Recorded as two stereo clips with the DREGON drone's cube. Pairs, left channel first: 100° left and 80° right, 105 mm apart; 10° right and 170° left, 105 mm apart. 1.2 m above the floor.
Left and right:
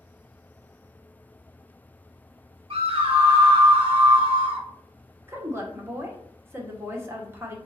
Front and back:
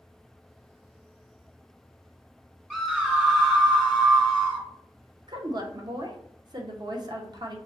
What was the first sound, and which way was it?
A scream, 105° right.